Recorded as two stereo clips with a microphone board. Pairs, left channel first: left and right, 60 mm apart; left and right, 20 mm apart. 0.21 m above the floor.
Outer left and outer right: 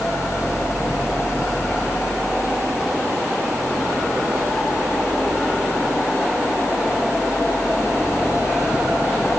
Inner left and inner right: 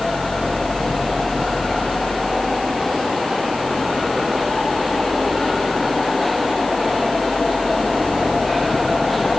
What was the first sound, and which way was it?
Only background noise.